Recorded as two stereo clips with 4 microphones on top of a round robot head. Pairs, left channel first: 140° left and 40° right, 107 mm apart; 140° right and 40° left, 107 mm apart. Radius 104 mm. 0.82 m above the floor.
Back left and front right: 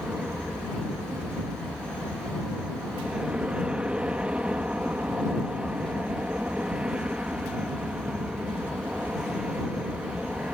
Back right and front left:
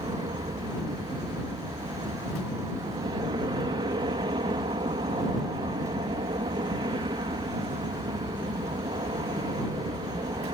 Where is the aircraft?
40° left.